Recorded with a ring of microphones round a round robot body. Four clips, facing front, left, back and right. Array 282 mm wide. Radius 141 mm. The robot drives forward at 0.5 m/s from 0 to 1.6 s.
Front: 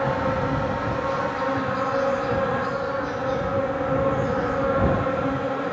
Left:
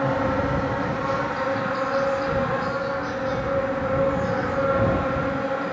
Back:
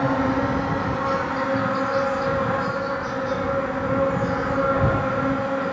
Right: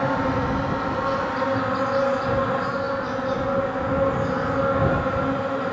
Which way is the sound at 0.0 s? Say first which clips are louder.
Even, back 2 dB; 150° right.